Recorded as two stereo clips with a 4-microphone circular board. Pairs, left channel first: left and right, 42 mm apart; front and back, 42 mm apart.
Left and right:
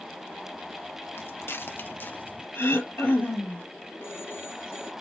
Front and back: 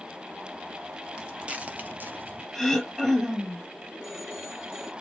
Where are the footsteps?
110° left, 1.7 m; by 2.4 s 140° left, 1.8 m.